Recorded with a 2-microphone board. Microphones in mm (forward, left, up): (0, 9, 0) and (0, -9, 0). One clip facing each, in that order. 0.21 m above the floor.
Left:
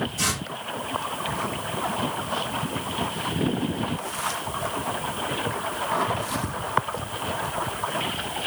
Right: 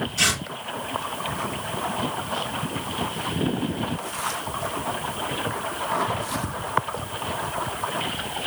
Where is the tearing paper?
50° right (ahead or behind), 1.7 m.